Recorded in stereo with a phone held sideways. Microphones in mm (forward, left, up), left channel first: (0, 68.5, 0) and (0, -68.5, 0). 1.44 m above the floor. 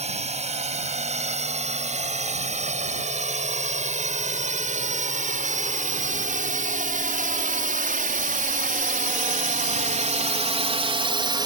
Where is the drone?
55° right (ahead or behind); by 11.5 s 30° right (ahead or behind).